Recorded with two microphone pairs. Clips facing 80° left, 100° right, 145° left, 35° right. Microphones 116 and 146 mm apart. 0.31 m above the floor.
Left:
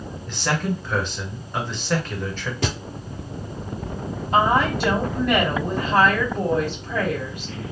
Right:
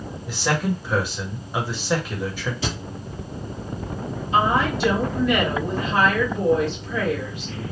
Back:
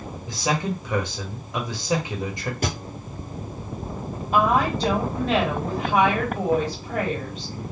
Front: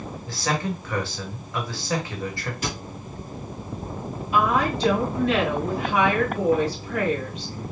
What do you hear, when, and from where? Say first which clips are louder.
0.3 s a man speaking: right 1 dB, back 2 dB; 175° right, 1.3 m
2.6 s a thud: left 5 dB, back 3 dB; 110° left, 1.8 m
4.3 s a woman speaking: left 1 dB, back 1 dB; 105° left, 2 m